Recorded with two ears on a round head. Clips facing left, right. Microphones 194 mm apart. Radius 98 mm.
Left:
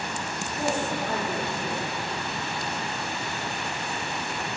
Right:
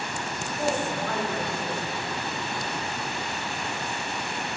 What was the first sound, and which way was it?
A woman speaking, 5° left (ahead or behind).